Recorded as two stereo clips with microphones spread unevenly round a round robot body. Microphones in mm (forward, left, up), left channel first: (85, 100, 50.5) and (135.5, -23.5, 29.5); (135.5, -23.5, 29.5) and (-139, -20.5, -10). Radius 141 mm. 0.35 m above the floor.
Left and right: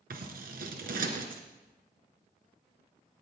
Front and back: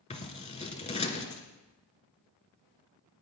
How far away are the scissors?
About 1.8 m.